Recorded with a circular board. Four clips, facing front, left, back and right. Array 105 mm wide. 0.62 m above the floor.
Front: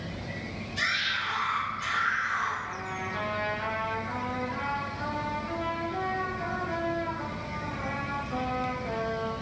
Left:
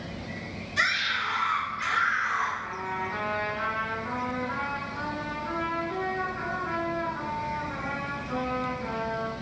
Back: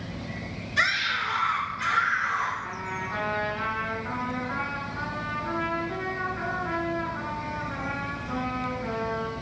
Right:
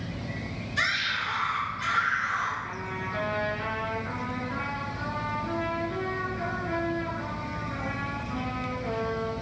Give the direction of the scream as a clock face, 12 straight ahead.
7 o'clock.